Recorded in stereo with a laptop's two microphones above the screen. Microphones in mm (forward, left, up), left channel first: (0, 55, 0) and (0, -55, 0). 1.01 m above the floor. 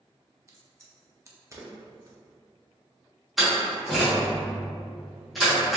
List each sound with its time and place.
0.5 s a crack: 30° right (ahead or behind), 0.5 m
3.4 s a door slam: centre (ahead or behind), 1.2 m